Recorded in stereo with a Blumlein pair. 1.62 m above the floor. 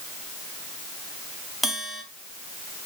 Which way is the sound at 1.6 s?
Straight ahead.